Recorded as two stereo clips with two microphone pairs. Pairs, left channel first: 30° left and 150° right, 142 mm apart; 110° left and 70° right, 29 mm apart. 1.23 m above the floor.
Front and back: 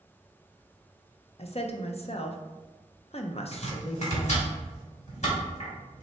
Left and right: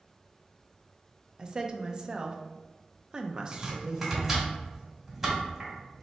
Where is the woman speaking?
10° right, 0.5 m.